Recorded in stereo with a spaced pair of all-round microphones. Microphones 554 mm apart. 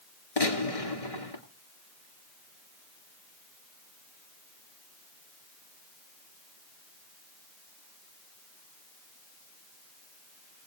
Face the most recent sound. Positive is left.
turn(degrees=85)